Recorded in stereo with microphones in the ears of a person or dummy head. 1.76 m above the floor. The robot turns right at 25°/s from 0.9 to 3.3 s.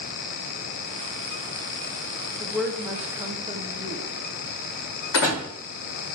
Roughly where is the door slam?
Left.